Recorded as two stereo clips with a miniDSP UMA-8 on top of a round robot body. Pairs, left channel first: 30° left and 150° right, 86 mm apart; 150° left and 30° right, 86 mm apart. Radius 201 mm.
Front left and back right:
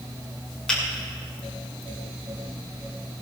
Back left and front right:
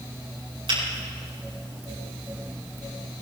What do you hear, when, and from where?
0.7 s a finger snap: 50° right, 6.5 m